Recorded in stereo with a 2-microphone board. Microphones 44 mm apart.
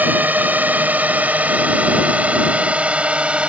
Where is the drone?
40° right (ahead or behind); by 3.5 s 25° right (ahead or behind).